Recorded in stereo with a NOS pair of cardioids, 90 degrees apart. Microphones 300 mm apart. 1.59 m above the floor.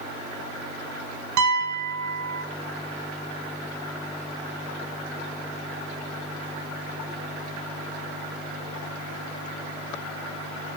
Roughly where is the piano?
Right.